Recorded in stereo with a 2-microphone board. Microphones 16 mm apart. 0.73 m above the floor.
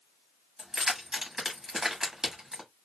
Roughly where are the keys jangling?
Right.